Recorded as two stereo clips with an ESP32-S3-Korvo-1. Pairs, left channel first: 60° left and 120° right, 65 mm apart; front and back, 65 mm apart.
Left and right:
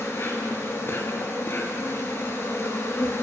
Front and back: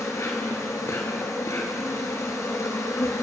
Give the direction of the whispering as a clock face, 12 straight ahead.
No whispering in this recording.